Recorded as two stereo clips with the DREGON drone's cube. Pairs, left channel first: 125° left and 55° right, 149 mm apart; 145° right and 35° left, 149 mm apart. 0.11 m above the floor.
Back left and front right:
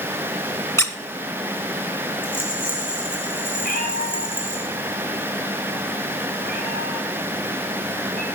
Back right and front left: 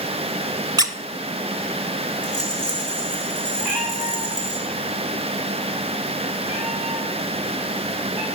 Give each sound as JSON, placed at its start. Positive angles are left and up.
{"t": 0.8, "sound": "a squeak", "azimuth_deg": 70, "distance_m": 0.9}
{"t": 2.2, "sound": "a rattle", "azimuth_deg": 180, "distance_m": 6.0}
{"t": 3.6, "sound": "a cat meowing", "azimuth_deg": 120, "distance_m": 6.5}